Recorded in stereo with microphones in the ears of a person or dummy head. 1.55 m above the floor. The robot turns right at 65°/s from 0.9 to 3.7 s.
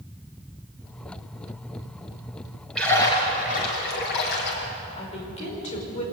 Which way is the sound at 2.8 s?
5° left.